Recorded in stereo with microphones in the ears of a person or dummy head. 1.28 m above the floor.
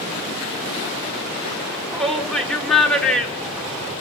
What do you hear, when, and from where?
1.7 s a shout: centre (ahead or behind), 3.5 m